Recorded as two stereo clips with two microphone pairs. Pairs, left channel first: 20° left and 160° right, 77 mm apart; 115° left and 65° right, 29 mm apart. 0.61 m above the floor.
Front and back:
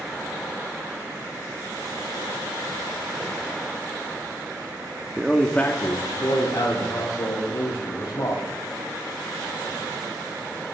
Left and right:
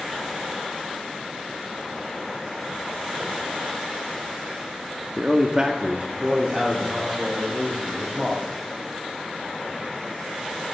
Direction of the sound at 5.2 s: 105° right.